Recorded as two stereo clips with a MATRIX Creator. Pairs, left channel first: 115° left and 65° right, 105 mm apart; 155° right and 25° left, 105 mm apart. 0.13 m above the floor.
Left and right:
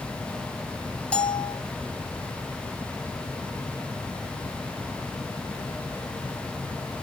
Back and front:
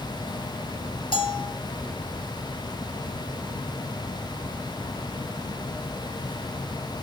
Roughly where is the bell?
Behind.